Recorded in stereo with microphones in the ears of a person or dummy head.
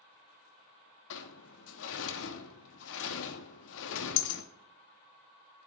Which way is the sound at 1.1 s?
70° left (ahead or behind).